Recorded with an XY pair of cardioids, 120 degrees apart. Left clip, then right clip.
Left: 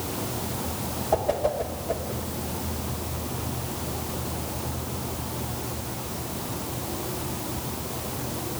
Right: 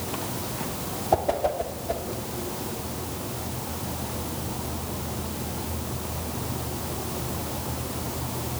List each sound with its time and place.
1.1 s a whoosh: 20° right, 1.5 m